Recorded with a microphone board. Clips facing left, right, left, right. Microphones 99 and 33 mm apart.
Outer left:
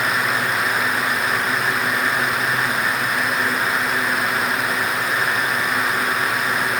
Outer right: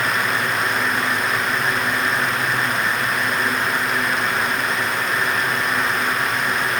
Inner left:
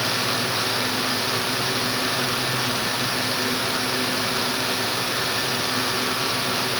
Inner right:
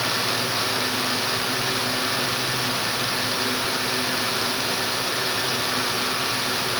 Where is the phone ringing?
I don't hear a phone ringing.